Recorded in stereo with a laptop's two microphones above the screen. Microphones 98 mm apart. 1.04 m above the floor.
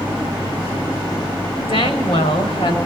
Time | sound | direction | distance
1.7 | a woman speaking | 65° left (ahead or behind) | 6.5 m